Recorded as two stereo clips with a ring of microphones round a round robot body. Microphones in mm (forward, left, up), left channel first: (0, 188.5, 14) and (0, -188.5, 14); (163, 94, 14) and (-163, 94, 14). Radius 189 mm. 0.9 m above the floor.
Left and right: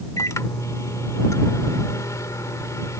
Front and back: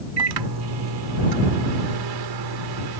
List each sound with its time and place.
0.2 s a microwave: 175° left